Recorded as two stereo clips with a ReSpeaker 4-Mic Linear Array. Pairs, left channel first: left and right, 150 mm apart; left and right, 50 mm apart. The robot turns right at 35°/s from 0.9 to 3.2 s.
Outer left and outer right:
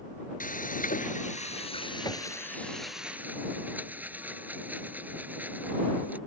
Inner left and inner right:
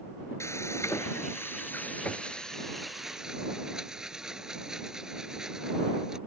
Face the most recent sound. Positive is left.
turn(degrees=-170)